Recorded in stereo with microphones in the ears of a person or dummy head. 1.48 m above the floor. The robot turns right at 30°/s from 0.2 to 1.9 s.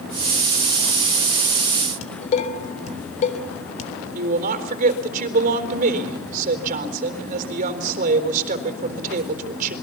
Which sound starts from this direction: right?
A woman speaking, at 4.2 s.